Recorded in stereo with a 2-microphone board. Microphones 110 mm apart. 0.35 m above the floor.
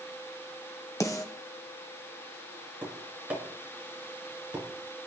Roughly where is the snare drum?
Left.